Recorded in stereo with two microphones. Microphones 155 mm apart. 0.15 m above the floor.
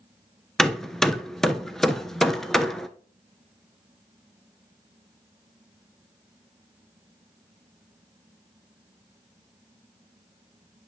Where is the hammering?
5° left (ahead or behind), 0.6 m.